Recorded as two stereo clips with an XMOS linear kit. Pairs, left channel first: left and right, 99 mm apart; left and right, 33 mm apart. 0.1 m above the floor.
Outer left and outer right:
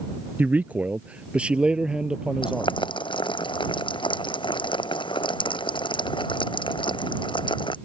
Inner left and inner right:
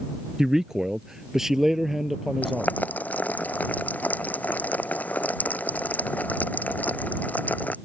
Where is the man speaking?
15° right (ahead or behind); by 2.8 s 5° right (ahead or behind).